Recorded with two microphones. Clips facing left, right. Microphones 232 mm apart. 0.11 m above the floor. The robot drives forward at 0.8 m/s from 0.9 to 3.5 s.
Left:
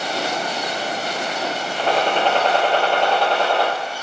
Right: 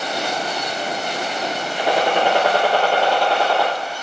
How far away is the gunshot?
About 0.9 m.